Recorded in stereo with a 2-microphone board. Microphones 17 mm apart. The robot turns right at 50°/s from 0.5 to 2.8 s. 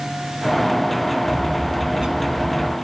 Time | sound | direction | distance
1.3 | a bird | 105° right | 2.5 m